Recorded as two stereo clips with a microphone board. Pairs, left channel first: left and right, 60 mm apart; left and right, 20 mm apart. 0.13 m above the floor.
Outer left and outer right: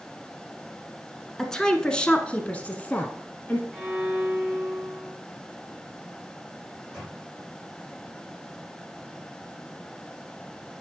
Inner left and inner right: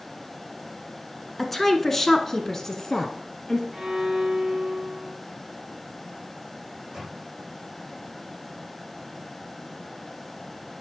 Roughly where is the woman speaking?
Centre.